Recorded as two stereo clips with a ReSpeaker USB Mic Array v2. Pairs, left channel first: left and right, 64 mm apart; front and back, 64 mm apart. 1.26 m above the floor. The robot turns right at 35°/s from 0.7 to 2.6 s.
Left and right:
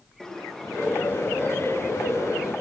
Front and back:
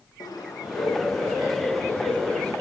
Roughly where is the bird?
Ahead.